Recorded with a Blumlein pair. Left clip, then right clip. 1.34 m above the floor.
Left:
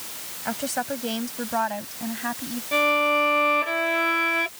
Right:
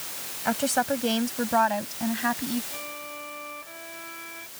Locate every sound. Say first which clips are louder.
0.5 s a woman speaking: right 3 dB; 10° right
2.7 s a violin: left 18 dB; 50° left